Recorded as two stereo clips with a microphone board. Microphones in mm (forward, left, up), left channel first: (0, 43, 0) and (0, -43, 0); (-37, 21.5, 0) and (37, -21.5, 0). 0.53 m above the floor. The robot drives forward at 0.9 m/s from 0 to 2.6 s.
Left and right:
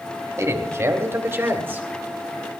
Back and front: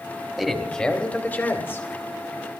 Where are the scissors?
No scissors in this recording.